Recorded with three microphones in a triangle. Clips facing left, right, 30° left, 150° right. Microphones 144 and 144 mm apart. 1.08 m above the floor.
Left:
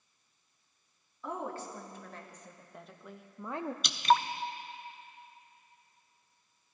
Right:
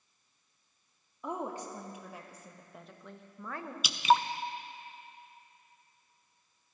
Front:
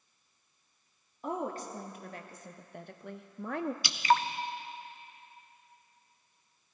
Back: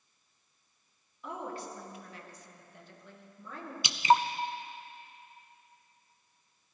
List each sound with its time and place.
1.2 s a woman speaking: 20° right, 2 m; by 3.7 s 35° left, 0.7 m
3.8 s dripping: 165° right, 0.5 m